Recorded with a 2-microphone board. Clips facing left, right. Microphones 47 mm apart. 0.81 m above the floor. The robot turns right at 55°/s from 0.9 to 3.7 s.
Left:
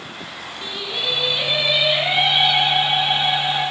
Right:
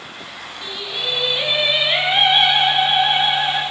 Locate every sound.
0.6 s singing: 165° left, 9 m; by 3.6 s 45° right, 9 m